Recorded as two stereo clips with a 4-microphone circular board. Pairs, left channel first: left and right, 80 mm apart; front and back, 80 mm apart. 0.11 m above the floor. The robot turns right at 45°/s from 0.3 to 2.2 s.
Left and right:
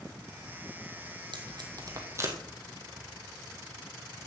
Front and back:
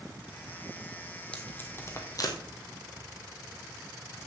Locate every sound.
1.3 s tape being pulled: 75° right, 1.9 m; by 2.4 s 35° right, 1.9 m